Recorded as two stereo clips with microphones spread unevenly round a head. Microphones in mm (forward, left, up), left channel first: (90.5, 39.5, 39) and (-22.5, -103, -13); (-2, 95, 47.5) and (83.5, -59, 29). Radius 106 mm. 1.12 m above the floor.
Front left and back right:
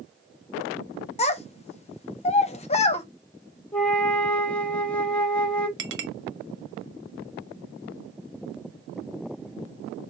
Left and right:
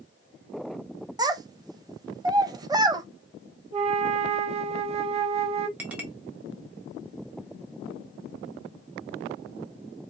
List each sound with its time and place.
1.2 s a child speaking: 10° left, 0.7 m
3.7 s a flute: 10° right, 0.7 m
5.8 s a clink: 145° right, 1.1 m